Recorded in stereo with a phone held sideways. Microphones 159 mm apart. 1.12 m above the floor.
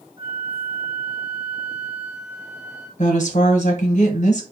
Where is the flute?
30° right (ahead or behind), 0.9 m.